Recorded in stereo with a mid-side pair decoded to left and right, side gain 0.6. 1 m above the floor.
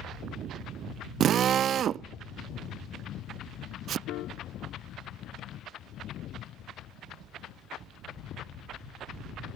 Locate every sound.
1.2 s a drill: 50° right
4.1 s a piano: 65° left